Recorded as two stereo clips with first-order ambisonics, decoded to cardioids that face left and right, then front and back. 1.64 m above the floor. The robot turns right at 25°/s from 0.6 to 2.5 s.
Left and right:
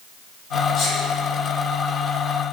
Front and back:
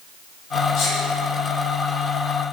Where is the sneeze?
40° left, 0.9 m; by 1.0 s 45° left, 0.9 m.